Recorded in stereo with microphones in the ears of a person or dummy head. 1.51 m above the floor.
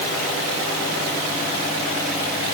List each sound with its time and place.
Only background noise.